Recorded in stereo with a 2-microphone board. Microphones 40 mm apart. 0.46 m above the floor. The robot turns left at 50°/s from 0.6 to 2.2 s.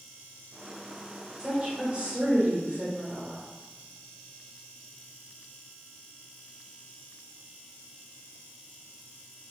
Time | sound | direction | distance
1.4 | a woman speaking | 25° right | 1.4 m